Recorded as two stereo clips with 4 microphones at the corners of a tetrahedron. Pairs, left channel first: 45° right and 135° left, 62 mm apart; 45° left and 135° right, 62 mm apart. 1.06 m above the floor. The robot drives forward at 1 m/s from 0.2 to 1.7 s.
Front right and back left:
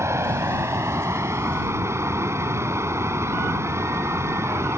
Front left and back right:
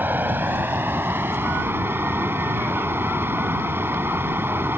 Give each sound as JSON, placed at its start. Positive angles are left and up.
{"t": 0.0, "sound": "running water", "azimuth_deg": 170}